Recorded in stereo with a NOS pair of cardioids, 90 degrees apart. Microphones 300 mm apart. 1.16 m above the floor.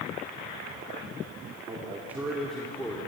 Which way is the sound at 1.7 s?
15° right.